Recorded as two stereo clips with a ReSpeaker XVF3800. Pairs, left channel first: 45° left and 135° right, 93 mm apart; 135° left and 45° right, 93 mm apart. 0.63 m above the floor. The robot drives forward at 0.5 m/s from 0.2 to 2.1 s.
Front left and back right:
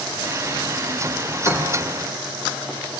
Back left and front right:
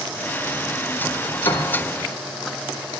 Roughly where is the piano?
Left.